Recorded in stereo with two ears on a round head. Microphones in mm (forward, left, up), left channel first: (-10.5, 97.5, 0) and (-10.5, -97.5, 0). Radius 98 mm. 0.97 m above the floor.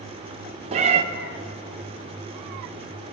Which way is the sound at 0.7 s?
30° right (ahead or behind).